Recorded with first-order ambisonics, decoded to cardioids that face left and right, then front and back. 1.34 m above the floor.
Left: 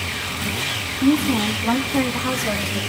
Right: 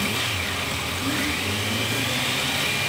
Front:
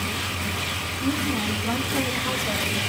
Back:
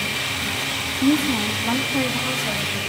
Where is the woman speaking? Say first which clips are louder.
Left 8 dB, back 6 dB; 130° left, 3 m; by 2.8 s 100° left, 3 m.